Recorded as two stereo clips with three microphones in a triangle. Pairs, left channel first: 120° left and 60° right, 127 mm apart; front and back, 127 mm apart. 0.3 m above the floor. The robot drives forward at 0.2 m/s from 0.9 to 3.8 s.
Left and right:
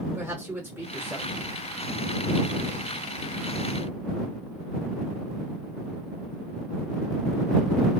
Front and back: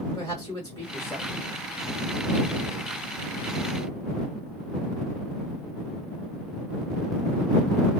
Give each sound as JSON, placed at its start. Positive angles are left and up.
{"t": 0.1, "sound": "a man speaking", "azimuth_deg": -5, "distance_m": 1.4}